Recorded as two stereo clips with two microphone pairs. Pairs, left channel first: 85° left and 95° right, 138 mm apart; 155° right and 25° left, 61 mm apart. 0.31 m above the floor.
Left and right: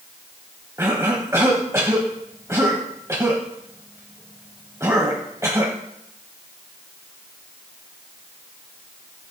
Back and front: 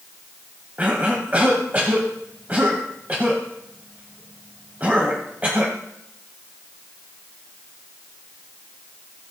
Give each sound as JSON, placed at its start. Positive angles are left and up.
{"t": 0.8, "sound": "a cough", "azimuth_deg": -30, "distance_m": 1.4}